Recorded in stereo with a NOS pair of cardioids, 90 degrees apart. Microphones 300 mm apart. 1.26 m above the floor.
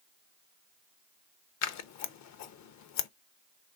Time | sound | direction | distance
1.6 | scissors | 65° left | 0.6 m